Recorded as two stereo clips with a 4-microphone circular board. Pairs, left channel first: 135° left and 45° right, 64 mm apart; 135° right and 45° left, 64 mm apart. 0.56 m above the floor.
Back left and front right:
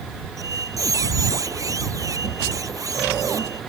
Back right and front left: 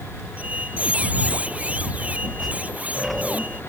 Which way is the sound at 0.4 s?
20° right.